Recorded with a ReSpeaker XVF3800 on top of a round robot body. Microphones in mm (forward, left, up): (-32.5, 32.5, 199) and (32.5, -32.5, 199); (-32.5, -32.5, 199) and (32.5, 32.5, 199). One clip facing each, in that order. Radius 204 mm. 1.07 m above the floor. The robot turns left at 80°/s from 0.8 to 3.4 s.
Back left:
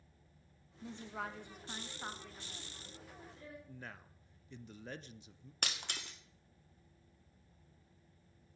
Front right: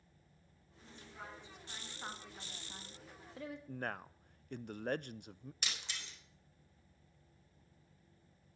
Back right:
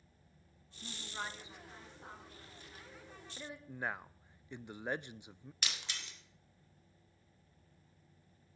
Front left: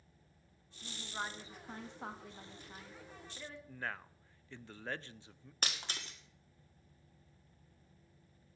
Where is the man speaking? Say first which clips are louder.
Front right 9 dB, back right 3 dB; 65° right, 0.5 m.